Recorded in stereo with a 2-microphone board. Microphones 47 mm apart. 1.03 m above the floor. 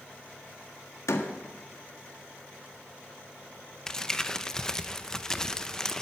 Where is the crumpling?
15° left (ahead or behind), 0.7 m.